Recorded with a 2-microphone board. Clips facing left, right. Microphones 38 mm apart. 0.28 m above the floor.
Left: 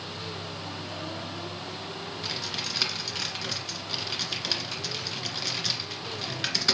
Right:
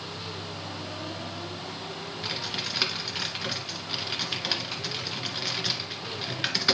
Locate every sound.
2.2 s typing on a keyboard: 15° right (ahead or behind), 1.6 m